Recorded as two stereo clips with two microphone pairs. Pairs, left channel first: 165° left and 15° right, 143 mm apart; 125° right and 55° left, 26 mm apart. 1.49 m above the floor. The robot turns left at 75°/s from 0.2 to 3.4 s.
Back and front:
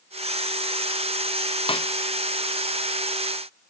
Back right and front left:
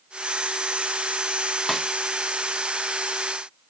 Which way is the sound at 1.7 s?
155° left.